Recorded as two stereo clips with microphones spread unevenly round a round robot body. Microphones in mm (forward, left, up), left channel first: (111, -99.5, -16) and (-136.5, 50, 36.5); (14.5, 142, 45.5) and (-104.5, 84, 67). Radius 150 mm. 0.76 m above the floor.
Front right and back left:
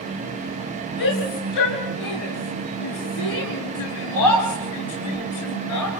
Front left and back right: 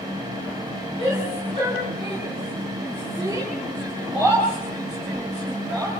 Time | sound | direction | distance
1.0 | a shout | 40° right | 9 m